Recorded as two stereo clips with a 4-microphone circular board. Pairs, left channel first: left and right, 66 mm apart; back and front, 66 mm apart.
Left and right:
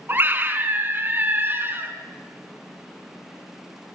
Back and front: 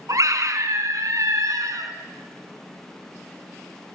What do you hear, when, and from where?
0.1 s a scream: 35° right, 4 m